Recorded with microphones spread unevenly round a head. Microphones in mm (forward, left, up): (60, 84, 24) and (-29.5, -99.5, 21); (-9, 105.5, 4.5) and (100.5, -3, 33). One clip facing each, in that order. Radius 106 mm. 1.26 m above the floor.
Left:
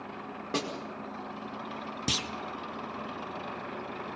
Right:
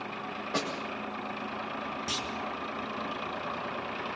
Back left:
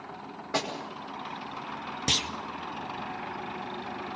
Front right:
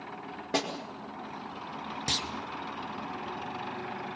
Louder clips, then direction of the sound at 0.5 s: Left 1 dB, front right 1 dB; 20° left.